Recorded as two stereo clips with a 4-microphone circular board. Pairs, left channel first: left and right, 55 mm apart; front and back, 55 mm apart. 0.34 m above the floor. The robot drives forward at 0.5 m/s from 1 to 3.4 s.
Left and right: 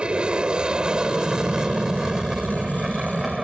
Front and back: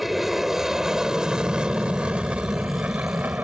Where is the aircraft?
100° right; by 3.4 s 170° right.